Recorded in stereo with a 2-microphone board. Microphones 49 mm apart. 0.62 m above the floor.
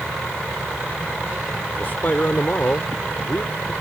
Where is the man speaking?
45° left (ahead or behind).